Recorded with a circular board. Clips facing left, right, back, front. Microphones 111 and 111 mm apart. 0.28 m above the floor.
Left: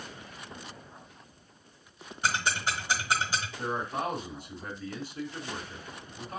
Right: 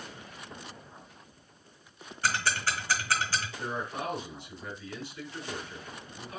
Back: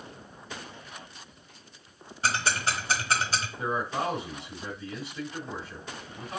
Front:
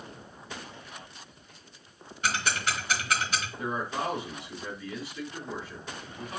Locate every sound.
2.2 s ticking: 150° left, 1.3 m
3.6 s a man speaking: 125° left, 3 m